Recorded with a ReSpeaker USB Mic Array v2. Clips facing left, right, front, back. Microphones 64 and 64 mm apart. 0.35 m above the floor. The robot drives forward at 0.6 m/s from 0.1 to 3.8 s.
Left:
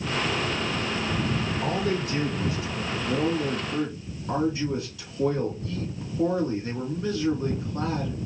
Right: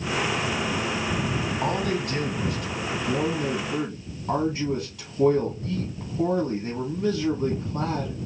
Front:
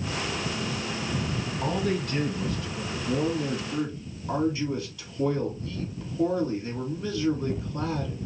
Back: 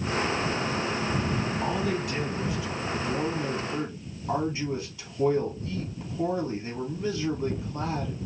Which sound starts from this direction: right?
A man speaking, at 1.6 s.